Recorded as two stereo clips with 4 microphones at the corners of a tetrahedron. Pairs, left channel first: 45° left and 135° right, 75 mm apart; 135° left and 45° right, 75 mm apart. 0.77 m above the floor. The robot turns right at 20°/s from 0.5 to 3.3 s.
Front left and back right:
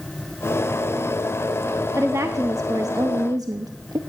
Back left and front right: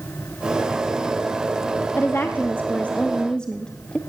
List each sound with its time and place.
2.0 s a woman speaking: 175° right, 0.6 m; by 4.0 s 150° right, 0.6 m